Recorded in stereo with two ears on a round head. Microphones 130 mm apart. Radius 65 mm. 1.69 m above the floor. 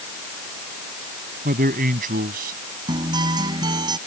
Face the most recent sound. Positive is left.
turn(degrees=-30)  # may be behind; listen again after turning